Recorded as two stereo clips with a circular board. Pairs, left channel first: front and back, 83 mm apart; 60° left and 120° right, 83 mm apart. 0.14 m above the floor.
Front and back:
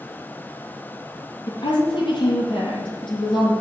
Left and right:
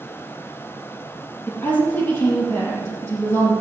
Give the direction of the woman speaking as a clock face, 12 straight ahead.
12 o'clock.